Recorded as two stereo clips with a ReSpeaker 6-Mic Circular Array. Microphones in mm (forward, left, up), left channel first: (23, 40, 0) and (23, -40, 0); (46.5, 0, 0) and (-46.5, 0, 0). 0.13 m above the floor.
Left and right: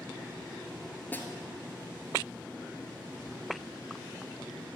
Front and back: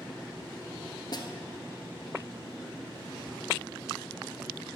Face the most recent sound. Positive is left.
turn(degrees=25)